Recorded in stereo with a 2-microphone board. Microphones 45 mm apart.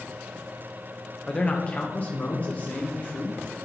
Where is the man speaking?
25° left (ahead or behind), 1.2 m; by 3.4 s 40° left (ahead or behind), 2.5 m.